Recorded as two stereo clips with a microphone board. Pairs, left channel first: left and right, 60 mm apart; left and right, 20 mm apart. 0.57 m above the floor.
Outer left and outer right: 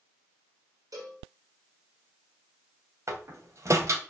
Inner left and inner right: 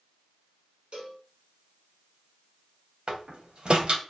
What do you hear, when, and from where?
0.9 s a cowbell: 70° right (ahead or behind), 5 m
3.1 s a door slam: 55° right (ahead or behind), 2.5 m